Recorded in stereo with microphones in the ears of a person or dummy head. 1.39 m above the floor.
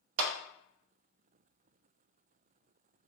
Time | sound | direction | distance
0.2 | a clap | 75° right (ahead or behind) | 0.6 m